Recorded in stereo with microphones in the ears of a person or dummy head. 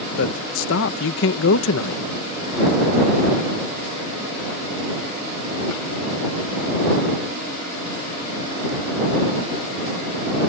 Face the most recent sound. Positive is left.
turn(degrees=70)  # may be behind; listen again after turning